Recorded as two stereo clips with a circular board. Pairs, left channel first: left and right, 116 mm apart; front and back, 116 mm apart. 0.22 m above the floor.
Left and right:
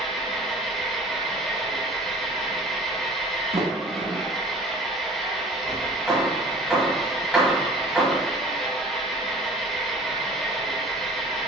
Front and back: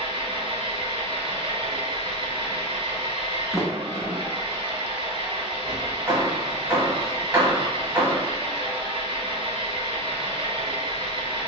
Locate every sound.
0.0 s an engine running: 175° left, 0.7 m
3.5 s a sliding door: 95° right, 0.5 m
6.1 s hammering: 165° right, 1.4 m